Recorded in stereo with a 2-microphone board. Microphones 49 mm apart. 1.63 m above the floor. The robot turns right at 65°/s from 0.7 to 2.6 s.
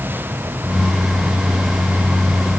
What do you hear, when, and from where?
Only background noise.